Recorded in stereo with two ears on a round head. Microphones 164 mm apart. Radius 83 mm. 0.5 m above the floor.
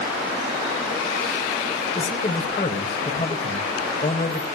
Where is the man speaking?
30° left (ahead or behind), 1.9 m.